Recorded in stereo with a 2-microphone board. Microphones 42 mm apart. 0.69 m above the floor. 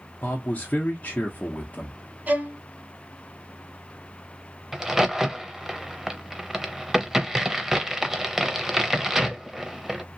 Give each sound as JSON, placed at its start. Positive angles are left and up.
{"t": 0.2, "sound": "a man speaking", "side_deg": 35, "distance_m": 0.7}
{"t": 2.3, "sound": "a violin", "side_deg": -40, "distance_m": 0.9}
{"t": 4.7, "sound": "a crack", "side_deg": -10, "distance_m": 0.5}